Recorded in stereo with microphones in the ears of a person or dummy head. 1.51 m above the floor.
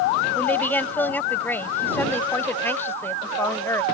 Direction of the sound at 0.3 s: 10° left (ahead or behind).